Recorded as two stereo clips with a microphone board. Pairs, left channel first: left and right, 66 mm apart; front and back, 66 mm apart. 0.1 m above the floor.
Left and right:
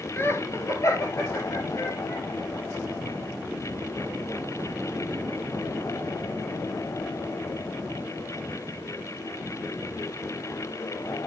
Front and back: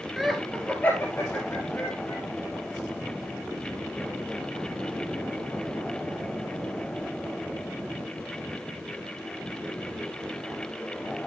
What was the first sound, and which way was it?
Laughter, 100° left.